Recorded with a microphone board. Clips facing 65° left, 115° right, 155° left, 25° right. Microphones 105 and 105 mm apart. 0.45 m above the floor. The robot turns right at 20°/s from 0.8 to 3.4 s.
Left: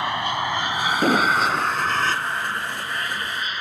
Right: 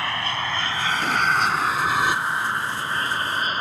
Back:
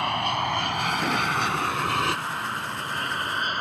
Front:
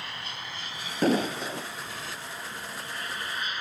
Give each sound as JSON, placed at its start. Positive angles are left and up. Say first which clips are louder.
{"t": 0.0, "sound": "an aircraft", "louder": "left 3 dB, back 15 dB", "azimuth_deg": 140}
{"t": 1.0, "sound": "an explosion", "louder": "left 3 dB, front 5 dB", "azimuth_deg": 25}